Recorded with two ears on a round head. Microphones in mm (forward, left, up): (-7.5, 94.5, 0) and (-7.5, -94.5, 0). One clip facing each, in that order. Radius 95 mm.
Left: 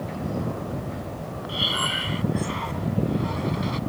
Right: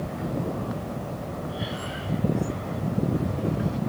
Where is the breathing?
85° left.